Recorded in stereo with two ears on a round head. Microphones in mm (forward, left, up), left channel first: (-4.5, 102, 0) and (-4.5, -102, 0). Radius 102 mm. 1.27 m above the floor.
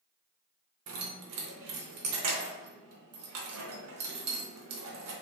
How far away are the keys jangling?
About 0.6 m.